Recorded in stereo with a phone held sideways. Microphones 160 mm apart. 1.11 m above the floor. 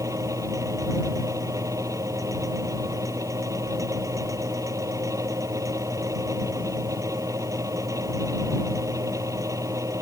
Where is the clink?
No clink in this recording.